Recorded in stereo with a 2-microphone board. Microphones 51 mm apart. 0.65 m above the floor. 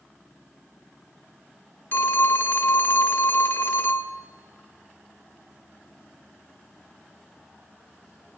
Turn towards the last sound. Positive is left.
turn(degrees=45)  # may be behind; listen again after turning